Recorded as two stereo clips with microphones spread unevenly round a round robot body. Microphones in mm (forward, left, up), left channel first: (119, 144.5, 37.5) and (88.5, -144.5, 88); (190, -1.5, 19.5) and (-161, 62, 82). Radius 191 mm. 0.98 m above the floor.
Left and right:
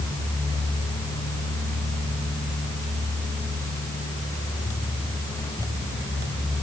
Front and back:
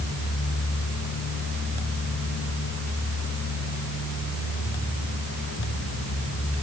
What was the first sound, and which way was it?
Only background noise.